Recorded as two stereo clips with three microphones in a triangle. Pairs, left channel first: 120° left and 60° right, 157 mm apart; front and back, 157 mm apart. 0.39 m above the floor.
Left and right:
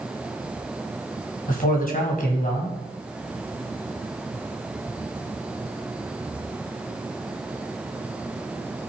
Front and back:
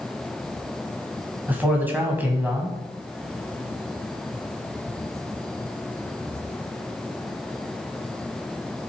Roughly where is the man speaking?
Left.